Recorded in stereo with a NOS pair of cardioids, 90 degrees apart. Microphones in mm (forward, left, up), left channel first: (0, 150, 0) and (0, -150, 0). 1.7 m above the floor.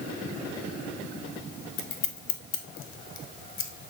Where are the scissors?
45° left, 0.7 m.